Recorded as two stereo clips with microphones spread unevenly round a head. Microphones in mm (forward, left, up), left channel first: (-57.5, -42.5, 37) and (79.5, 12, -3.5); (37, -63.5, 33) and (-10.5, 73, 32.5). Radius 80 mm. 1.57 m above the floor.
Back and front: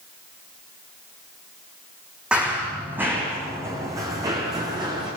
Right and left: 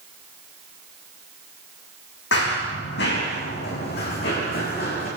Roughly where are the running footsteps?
Ahead right.